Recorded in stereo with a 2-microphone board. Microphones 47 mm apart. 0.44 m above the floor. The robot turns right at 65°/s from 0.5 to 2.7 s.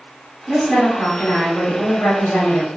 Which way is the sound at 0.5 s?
20° right.